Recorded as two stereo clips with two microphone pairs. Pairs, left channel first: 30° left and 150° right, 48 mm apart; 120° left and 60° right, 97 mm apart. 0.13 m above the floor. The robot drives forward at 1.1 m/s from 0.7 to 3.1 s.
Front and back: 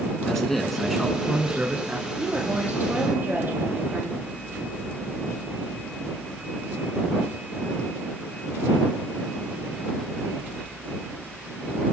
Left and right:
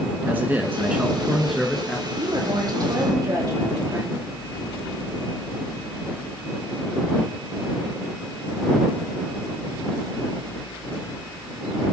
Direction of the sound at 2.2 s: 90° right.